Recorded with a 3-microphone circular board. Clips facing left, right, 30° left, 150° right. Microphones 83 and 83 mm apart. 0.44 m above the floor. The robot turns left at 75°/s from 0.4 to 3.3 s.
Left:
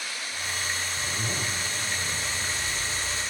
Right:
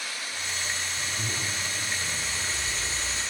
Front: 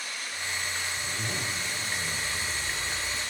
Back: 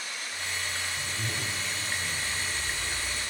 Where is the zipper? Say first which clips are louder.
Left 2 dB, front 1 dB; 120° left, 1.2 m; by 3.2 s 50° right, 1.2 m.